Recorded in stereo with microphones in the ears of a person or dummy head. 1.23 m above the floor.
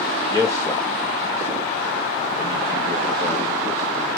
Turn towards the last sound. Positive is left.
turn(degrees=15)  # may be behind; listen again after turning